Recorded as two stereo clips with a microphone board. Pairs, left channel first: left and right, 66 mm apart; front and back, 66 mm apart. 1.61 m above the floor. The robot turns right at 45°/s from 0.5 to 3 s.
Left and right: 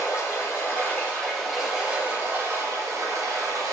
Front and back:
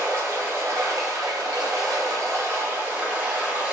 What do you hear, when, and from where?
0.0 s running water: 135° left, 1.1 m; by 3.7 s 115° right, 1.1 m